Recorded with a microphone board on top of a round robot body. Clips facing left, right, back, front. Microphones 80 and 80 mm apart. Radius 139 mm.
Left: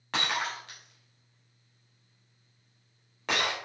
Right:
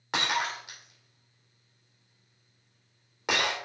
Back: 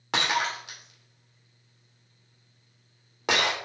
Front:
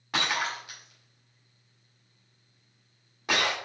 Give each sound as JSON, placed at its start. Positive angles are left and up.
{"t": 0.1, "sound": "breaking glass", "azimuth_deg": -170, "distance_m": 4.0}